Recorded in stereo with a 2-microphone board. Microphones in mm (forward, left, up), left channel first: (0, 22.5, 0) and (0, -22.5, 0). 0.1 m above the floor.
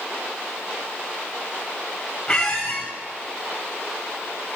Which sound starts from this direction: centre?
A squeak, at 2.3 s.